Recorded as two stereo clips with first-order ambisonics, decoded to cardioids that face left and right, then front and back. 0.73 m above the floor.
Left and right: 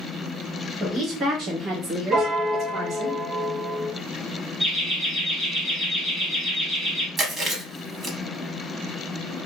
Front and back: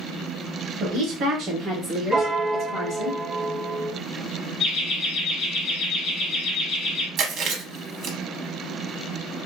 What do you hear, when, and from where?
0.8 s a woman speaking: 155° right, 1.1 m; by 3.1 s 35° right, 1.7 m
2.1 s a piano: 105° right, 0.5 m
4.6 s laughter: 35° right, 1.4 m
7.2 s chewing: 150° right, 0.7 m